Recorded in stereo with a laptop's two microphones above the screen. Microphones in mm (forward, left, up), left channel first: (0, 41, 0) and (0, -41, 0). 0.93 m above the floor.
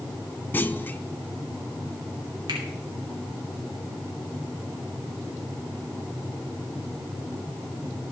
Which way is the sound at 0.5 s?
25° left (ahead or behind).